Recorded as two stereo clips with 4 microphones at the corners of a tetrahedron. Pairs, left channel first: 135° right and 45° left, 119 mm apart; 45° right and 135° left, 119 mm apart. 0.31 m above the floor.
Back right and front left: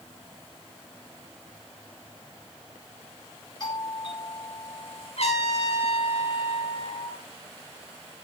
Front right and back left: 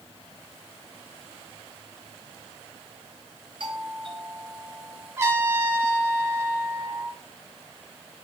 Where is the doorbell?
175° left, 7.5 m.